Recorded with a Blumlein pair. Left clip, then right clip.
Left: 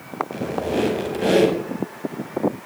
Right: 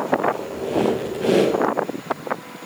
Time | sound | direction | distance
0.3 | a squeak | 15° left | 5.5 m